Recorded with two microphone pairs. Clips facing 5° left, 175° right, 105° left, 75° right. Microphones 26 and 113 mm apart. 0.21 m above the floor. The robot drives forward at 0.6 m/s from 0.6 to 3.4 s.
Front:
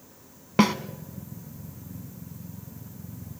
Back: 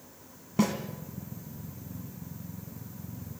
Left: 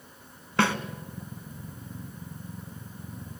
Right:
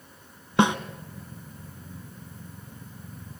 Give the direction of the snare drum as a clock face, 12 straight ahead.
12 o'clock.